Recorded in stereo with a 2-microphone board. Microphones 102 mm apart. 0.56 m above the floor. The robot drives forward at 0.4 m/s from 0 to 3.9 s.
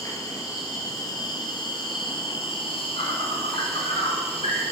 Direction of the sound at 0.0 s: 35° left (ahead or behind).